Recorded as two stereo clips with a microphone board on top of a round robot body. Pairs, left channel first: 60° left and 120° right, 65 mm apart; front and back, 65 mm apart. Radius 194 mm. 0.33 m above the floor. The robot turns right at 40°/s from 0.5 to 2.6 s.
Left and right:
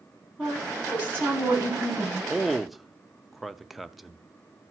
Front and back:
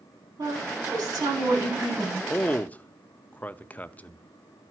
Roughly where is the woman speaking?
Behind.